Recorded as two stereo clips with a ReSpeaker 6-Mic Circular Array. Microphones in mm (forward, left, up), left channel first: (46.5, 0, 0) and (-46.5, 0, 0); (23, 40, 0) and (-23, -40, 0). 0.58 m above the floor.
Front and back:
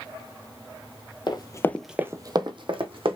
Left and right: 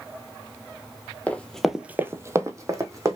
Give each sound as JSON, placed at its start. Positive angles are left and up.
{"t": 1.3, "sound": "running footsteps", "azimuth_deg": -10, "distance_m": 0.8}